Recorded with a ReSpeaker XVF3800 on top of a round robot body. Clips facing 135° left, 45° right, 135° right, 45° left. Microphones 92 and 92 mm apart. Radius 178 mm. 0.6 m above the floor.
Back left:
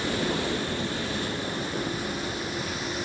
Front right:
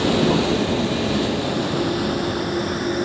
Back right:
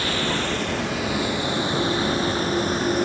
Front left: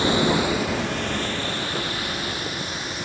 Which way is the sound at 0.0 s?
25° right.